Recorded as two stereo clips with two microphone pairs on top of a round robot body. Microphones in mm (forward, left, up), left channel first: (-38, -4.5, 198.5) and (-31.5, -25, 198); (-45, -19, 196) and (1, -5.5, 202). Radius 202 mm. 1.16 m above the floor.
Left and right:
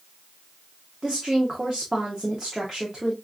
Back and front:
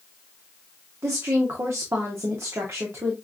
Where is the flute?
No flute in this recording.